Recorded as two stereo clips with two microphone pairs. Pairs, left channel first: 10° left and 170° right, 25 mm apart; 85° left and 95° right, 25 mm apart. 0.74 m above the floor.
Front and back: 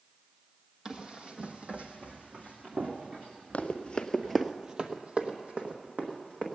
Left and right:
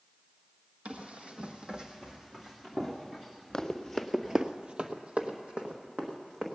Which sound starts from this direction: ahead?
Running footsteps, at 3.5 s.